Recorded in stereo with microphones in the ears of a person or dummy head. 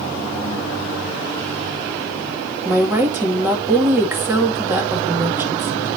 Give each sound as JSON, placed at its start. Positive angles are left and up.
{"t": 2.6, "sound": "a woman speaking", "side_deg": -15, "distance_m": 2.0}